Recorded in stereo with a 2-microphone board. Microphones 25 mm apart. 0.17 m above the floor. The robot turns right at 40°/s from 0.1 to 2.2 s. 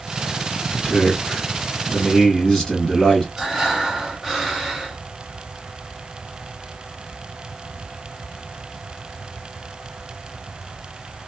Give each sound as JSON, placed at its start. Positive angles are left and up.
{"t": 0.7, "sound": "a man speaking", "side_deg": 20, "distance_m": 1.7}
{"t": 3.4, "sound": "breathing", "side_deg": -5, "distance_m": 1.1}